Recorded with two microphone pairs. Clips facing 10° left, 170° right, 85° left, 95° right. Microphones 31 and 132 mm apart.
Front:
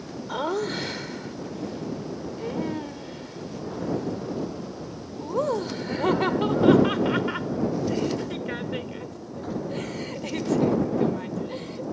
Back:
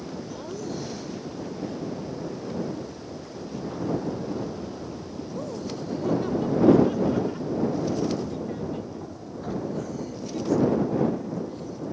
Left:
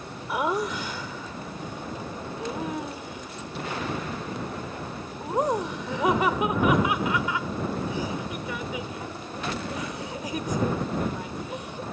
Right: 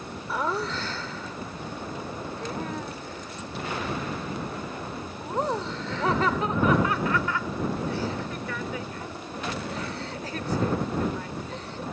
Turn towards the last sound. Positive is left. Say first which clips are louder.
# front 10 dB, left 2 dB
turn(degrees=10)